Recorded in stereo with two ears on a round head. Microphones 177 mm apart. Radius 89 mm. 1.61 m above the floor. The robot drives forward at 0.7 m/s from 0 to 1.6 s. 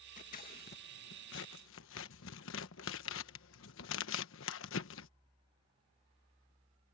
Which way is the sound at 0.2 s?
40° left (ahead or behind).